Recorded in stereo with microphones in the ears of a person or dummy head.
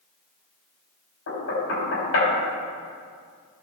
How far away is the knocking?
About 3.5 m.